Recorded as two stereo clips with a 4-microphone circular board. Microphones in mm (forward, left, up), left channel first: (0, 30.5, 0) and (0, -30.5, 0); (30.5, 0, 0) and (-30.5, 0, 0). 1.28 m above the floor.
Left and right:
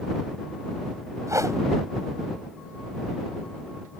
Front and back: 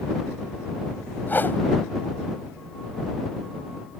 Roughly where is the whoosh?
Ahead right.